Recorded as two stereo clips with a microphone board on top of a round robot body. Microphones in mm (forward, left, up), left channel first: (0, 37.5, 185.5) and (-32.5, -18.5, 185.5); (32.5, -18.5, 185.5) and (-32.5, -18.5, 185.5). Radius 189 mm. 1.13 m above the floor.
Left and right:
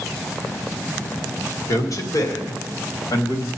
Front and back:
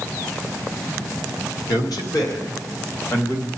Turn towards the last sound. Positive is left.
turn(degrees=45)